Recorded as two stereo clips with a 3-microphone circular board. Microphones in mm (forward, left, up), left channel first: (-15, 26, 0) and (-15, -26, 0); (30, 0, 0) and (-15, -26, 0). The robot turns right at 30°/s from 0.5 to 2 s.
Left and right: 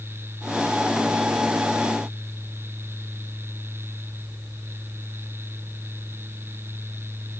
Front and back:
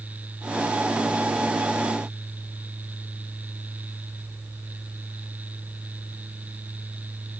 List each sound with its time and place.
Only background noise.